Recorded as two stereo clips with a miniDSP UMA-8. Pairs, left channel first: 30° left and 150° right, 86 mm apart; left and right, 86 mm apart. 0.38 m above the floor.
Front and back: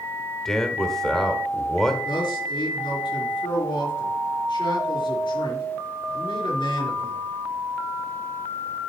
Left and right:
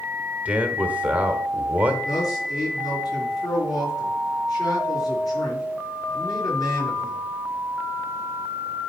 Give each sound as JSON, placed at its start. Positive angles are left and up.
{"t": 0.5, "sound": "a man speaking", "azimuth_deg": -45, "distance_m": 1.3}
{"t": 2.0, "sound": "a man speaking", "azimuth_deg": 50, "distance_m": 4.5}